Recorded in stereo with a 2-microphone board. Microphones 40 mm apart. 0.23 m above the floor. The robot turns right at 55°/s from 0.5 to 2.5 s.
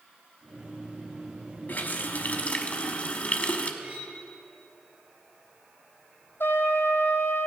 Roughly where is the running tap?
Left.